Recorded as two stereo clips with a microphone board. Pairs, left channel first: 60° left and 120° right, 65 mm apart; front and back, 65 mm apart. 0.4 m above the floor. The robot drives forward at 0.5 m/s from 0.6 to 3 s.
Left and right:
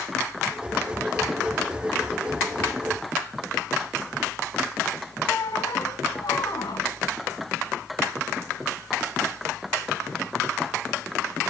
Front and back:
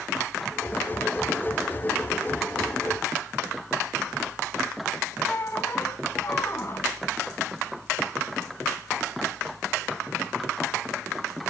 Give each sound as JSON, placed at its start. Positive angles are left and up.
{"t": 5.3, "sound": "a squeak", "azimuth_deg": 45, "distance_m": 1.1}